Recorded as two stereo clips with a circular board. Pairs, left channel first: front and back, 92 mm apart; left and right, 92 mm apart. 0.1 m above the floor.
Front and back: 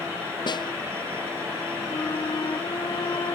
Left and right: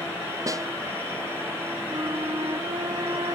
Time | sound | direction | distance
0.5 | a snare drum | 40° right | ?
1.9 | a flute | 45° right | ?